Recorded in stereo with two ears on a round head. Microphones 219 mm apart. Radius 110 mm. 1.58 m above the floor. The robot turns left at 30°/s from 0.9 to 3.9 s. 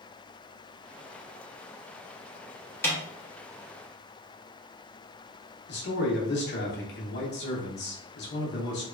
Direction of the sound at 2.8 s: 10° left (ahead or behind).